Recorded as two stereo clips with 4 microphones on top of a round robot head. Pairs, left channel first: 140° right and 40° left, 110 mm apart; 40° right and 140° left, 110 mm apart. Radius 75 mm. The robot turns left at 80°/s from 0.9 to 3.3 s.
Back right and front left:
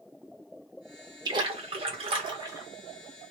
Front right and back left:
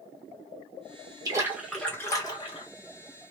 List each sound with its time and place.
1.2 s a splash: 90° left, 1.3 m; by 2.7 s 25° right, 1.3 m